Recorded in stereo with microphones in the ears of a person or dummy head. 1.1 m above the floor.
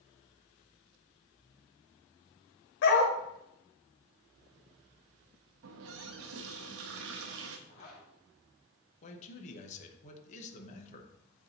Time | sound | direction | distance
2.8 | a dog barking | 60° left (ahead or behind) | 1.5 m
5.6 | a running tap | 70° right (ahead or behind) | 0.7 m
7.7 | a zipper | 40° left (ahead or behind) | 1.4 m
9.0 | a man speaking | 40° left (ahead or behind) | 1.1 m